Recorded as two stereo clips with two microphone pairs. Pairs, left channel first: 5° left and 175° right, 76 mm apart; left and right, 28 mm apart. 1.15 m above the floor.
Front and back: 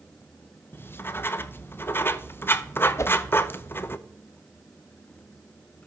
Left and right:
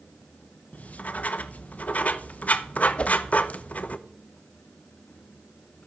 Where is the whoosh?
50° left, 0.7 m.